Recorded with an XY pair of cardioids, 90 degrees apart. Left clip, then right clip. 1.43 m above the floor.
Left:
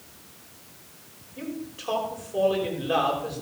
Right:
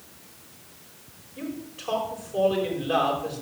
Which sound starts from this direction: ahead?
A man speaking, at 1.4 s.